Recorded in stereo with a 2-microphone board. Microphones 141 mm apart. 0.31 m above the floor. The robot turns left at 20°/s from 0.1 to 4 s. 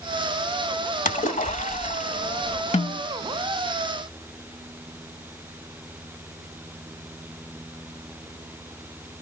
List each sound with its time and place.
1.1 s a splash: 95° left, 1.1 m; by 2.6 s 65° left, 1.1 m
2.7 s a snare drum: 55° left (ahead or behind), 0.6 m; by 3.0 s 50° left (ahead or behind), 0.6 m